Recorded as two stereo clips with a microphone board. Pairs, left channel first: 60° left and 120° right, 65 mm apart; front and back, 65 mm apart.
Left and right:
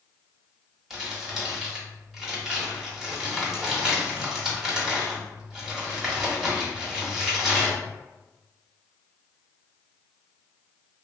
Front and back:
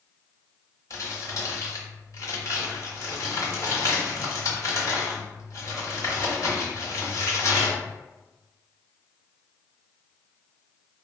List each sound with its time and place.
0.9 s crumpling: 40° right, 1.0 m